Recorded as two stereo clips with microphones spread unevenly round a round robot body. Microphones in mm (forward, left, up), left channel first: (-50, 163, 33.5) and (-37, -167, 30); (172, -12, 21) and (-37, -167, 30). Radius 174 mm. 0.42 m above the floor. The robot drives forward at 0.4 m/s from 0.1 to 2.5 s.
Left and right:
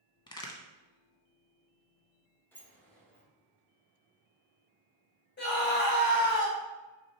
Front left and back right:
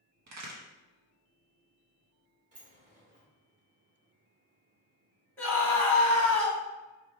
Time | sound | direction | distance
0.3 | a crack | 170° left | 0.6 m
2.5 | a sliding door | 170° left | 1.0 m
5.4 | a scream | 110° left | 1.4 m